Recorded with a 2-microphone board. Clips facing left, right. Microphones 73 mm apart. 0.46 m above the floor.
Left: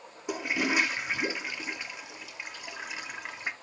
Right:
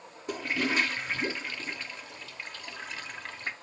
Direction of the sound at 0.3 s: 10° left (ahead or behind).